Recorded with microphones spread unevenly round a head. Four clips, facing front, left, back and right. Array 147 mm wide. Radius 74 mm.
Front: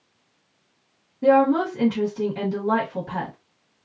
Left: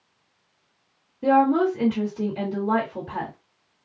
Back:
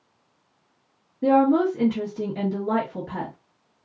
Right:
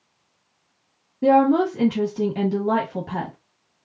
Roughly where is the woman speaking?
Right.